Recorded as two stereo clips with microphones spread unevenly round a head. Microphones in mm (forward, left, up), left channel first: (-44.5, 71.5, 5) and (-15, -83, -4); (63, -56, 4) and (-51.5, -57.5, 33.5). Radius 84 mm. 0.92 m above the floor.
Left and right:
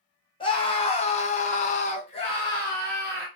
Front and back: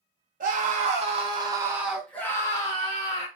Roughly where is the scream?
Behind.